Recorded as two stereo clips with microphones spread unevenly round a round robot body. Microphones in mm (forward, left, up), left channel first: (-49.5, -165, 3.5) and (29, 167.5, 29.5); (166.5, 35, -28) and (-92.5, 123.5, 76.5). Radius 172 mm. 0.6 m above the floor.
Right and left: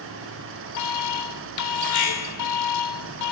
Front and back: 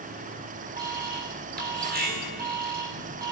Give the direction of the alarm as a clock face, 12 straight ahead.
4 o'clock.